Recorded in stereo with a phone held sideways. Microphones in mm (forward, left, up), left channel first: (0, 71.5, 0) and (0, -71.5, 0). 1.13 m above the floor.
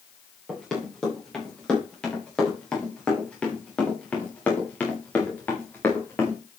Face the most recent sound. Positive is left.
turn(degrees=15)  # may be behind; listen again after turning